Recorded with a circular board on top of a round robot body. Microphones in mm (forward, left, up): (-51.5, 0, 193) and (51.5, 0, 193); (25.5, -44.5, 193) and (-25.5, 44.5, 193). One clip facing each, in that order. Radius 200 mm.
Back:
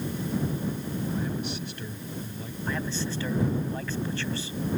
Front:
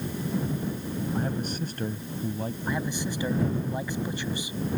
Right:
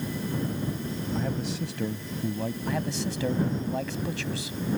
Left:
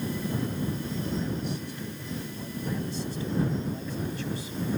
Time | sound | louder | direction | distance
1.1 | a man speaking | front 2 dB, right 1 dB | 50° right | ?
2.7 | a man speaking | back 1 dB, left 1 dB | 75° right | ?